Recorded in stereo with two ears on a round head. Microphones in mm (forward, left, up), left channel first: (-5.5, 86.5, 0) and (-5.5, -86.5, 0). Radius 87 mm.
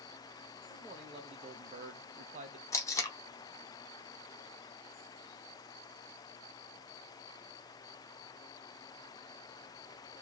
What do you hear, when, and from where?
0.7 s a man speaking: 20° right (ahead or behind), 1.0 m; by 2.6 s 35° right (ahead or behind), 0.8 m
2.7 s tape being pulled: 15° left (ahead or behind), 0.7 m